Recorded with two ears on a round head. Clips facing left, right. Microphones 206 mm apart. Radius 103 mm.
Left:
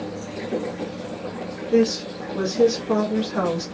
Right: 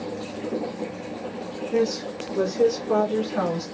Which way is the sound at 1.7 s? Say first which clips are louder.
Left 5 dB; 55° left (ahead or behind).